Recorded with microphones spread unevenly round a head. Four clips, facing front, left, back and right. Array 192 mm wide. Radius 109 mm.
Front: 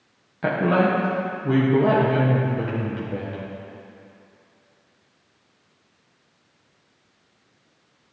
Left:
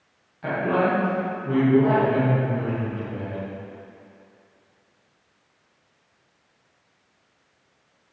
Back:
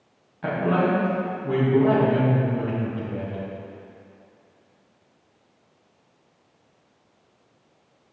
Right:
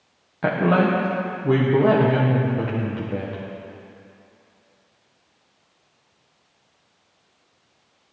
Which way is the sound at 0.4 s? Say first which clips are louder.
Right 3 dB, front 2 dB; 50° right.